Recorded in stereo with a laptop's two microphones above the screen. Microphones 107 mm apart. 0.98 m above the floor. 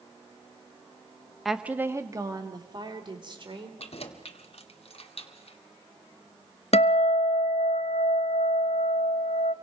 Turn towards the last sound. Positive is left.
turn(degrees=70)  # may be behind; listen again after turning